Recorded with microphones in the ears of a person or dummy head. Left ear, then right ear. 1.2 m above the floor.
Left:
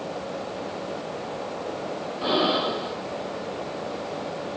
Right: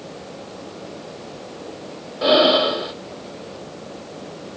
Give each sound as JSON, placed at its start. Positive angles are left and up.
{"t": 2.2, "sound": "breathing", "side_deg": -40, "distance_m": 1.8}